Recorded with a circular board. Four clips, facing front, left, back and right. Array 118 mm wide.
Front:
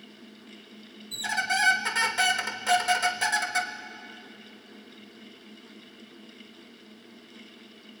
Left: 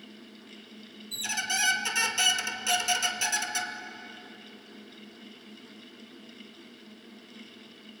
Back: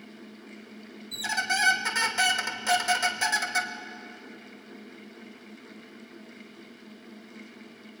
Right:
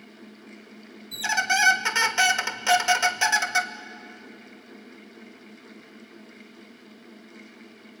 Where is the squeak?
85° right, 1.0 m.